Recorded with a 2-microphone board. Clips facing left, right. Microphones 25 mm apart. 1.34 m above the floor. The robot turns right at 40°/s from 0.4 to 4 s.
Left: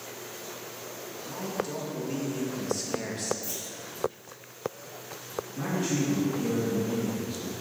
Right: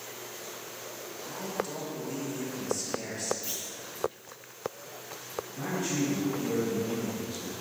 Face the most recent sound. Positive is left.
turn(degrees=85)